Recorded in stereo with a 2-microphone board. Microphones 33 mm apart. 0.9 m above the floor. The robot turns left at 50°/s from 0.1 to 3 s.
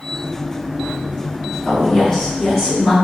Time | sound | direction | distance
1.6 | a woman speaking | 25° left | 1.8 m